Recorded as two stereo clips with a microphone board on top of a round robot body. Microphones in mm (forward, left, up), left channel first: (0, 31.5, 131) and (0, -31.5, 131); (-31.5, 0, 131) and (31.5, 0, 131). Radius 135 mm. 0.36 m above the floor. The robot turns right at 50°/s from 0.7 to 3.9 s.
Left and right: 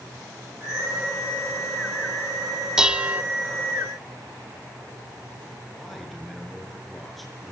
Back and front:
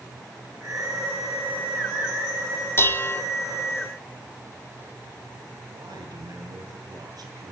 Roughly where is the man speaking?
Ahead.